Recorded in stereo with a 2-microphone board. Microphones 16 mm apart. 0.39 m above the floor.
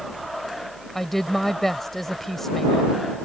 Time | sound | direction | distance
0.9 | a woman speaking | 15° left (ahead or behind) | ?